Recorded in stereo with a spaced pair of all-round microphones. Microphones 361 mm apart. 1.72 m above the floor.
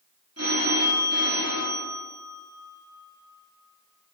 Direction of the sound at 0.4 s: 45° right (ahead or behind).